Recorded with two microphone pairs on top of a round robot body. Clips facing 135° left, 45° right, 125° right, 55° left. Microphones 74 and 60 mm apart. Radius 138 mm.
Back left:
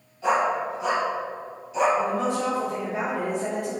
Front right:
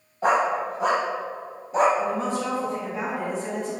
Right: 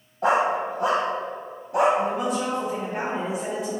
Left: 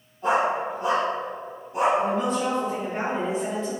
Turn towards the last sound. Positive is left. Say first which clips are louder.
# back left 1 dB, left 1 dB
turn(degrees=155)